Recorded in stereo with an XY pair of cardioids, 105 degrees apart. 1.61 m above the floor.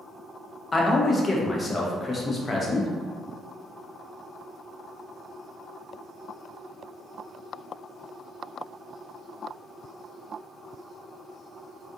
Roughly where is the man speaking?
Ahead left.